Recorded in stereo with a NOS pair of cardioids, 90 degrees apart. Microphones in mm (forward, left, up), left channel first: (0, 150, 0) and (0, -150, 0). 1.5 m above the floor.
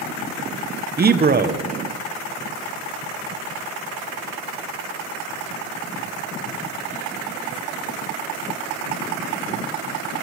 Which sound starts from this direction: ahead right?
A man speaking, at 1.0 s.